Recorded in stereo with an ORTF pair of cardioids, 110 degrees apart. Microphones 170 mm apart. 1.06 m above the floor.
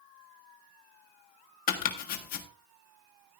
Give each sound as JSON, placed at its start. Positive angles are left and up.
{"t": 1.7, "sound": "chopping", "azimuth_deg": 65, "distance_m": 1.6}